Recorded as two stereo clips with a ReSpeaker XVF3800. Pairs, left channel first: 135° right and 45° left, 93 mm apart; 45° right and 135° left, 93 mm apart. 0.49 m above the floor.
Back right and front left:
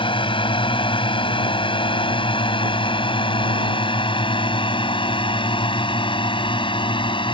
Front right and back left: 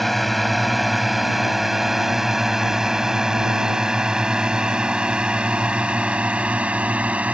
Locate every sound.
0.0 s a drone: 135° right; by 7.3 s 150° right